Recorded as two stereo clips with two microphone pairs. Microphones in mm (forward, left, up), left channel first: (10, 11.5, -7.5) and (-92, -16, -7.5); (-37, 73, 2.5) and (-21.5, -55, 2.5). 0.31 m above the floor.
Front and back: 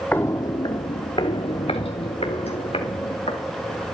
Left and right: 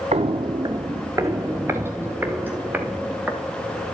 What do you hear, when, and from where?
0.1 s footsteps: 60° right, 0.5 m; by 3.8 s 5° right, 3 m